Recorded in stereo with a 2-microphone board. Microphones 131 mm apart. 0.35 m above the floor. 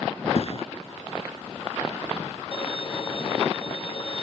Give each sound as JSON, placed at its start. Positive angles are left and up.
{"t": 0.3, "sound": "a thud", "side_deg": 55}
{"t": 2.5, "sound": "a violin", "side_deg": 45}